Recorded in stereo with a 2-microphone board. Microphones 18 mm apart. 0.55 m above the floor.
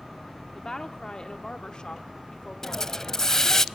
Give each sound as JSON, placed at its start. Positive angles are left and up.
{"t": 0.6, "sound": "a woman speaking", "side_deg": 30, "distance_m": 1.3}
{"t": 2.6, "sound": "a hiss", "side_deg": 30, "distance_m": 0.6}